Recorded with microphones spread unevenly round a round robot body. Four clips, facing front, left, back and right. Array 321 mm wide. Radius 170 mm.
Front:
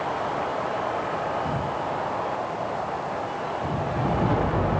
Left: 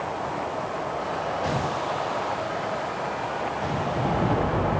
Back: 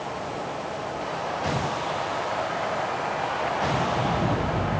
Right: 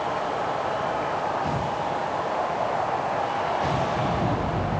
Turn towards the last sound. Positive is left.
No sound to turn to.